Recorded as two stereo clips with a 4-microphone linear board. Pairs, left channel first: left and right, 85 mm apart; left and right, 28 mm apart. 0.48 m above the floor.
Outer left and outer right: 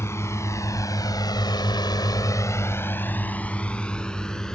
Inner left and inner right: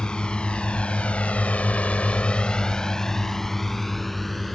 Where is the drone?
30° left (ahead or behind); by 4.5 s 10° left (ahead or behind).